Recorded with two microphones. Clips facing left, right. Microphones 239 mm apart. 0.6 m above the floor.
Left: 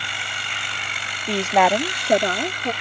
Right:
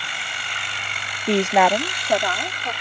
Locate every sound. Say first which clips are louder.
1.3 s a woman speaking: right 2 dB; 25° right (ahead or behind); by 2.7 s 50° left (ahead or behind)